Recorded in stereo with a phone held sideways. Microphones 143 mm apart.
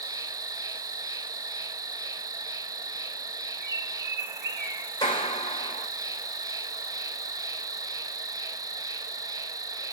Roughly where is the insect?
Right.